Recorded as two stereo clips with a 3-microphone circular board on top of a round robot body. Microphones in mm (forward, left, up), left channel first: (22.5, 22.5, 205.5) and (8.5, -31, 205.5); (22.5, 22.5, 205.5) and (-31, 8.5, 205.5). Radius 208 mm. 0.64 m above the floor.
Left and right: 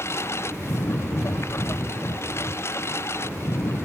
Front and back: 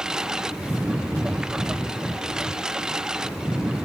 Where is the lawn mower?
115° left.